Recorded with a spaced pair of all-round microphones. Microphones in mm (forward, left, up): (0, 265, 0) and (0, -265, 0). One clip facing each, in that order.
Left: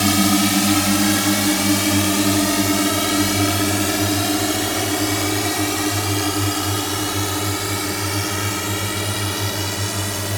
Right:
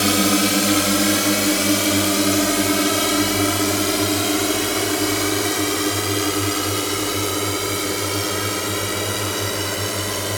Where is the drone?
20° left (ahead or behind); by 10.4 s 15° left (ahead or behind).